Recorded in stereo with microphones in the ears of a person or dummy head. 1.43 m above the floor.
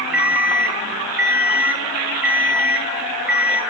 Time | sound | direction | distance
0.1 | an alarm clock | 10° right (ahead or behind) | 0.7 m